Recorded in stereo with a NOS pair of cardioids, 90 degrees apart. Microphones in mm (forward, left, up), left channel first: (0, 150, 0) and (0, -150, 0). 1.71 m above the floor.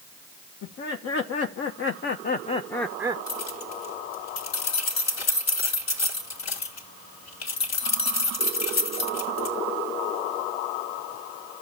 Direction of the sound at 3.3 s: 65° left.